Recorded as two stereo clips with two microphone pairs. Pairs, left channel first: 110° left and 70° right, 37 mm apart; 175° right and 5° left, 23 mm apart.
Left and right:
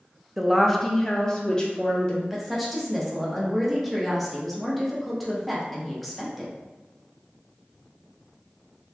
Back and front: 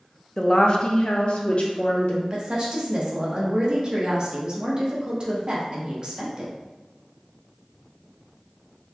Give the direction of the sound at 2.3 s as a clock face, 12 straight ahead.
11 o'clock.